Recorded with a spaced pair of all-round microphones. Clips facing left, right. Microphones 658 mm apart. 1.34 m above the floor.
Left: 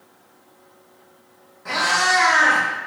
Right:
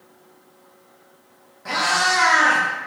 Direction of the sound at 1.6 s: 20° right (ahead or behind).